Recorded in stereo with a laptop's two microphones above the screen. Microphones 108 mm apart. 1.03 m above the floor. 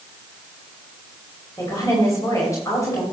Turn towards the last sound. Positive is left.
turn(degrees=30)  # may be behind; listen again after turning